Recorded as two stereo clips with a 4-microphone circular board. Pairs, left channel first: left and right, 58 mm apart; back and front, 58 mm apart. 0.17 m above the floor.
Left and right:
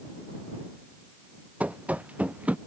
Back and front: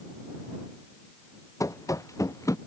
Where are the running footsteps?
155° right.